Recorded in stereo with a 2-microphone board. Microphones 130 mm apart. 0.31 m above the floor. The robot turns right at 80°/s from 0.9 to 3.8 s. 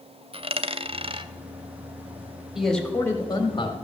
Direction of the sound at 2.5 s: 5° right.